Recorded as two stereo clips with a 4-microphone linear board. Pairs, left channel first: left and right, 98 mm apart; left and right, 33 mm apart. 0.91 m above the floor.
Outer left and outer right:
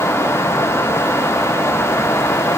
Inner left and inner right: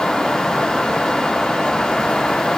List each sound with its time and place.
Only background noise.